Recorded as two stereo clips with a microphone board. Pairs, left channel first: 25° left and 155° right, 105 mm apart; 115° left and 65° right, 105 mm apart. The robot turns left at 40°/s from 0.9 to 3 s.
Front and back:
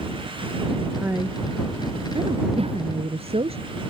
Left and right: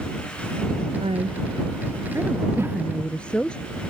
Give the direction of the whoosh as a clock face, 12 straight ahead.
4 o'clock.